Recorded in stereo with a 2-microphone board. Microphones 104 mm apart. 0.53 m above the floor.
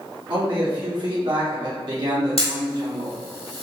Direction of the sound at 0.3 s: 50° right (ahead or behind).